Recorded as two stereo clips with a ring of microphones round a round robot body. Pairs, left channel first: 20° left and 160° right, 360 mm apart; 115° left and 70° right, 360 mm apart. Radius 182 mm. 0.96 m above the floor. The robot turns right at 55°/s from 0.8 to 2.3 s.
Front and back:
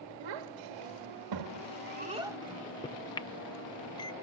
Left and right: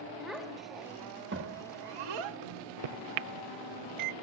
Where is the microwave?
55° right, 0.6 m.